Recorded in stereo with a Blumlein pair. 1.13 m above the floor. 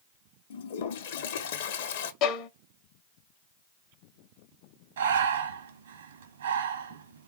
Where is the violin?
35° left, 0.6 m.